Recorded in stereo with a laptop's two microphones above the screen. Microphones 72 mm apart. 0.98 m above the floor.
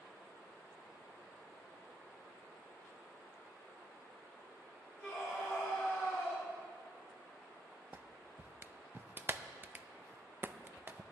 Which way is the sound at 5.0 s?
10° right (ahead or behind).